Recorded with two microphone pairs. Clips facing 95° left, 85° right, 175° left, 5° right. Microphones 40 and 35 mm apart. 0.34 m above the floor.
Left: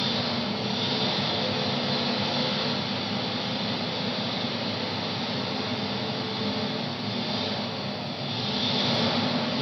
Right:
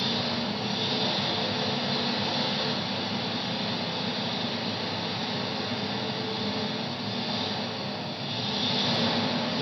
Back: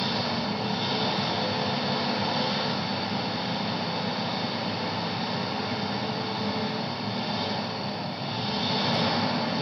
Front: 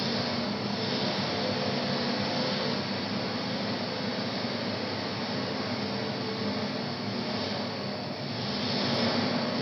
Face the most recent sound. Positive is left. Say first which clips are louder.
# left 1 dB, back 2 dB
turn(degrees=-165)